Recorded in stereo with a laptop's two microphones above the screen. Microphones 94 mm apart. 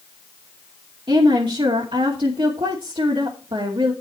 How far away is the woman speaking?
About 2 m.